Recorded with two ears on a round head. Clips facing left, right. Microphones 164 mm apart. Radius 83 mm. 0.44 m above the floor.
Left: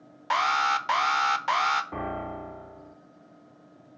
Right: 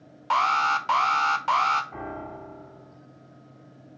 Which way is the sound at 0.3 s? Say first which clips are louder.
Right 2 dB; 10° left (ahead or behind).